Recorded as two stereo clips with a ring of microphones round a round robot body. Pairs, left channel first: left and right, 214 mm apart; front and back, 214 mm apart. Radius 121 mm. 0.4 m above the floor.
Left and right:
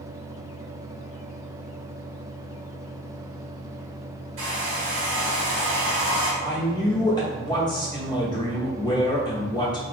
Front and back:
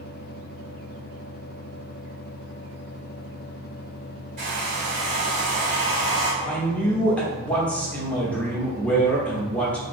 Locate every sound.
4.4 s a hair dryer: 125° right, 1.0 m
6.4 s a man speaking: 70° left, 0.9 m